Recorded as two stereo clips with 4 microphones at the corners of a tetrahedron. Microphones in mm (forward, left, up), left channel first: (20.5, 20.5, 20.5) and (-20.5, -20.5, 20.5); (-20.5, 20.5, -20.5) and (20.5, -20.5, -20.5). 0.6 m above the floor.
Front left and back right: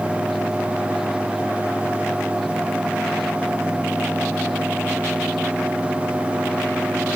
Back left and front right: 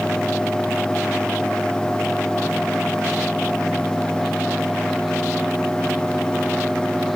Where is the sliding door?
No sliding door in this recording.